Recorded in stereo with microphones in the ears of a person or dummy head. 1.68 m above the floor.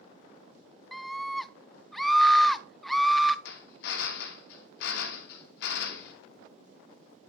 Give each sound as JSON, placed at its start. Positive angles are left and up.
{"t": 0.9, "sound": "a scream", "side_deg": -5, "distance_m": 0.7}
{"t": 3.5, "sound": "a drill", "side_deg": 65, "distance_m": 2.0}